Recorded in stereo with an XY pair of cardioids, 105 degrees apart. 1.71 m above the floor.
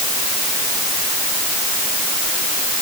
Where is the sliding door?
I don't hear a sliding door.